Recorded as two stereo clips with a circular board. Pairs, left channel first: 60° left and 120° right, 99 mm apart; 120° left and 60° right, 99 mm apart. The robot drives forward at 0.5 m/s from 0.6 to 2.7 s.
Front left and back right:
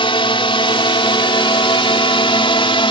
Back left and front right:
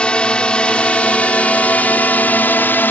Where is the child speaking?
No child speaking in this recording.